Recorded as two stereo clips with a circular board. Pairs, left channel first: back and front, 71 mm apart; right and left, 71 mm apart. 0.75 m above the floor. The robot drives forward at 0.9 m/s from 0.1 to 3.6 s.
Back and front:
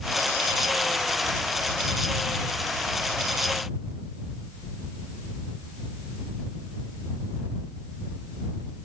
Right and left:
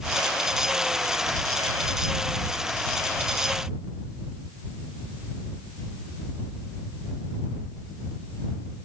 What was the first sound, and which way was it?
Only background noise.